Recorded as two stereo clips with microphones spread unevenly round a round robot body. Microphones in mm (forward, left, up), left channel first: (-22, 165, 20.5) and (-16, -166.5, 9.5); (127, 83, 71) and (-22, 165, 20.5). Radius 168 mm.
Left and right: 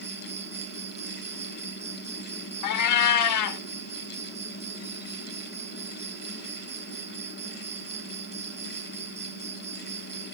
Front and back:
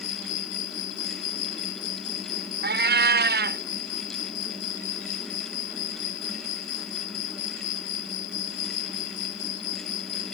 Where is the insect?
15° right.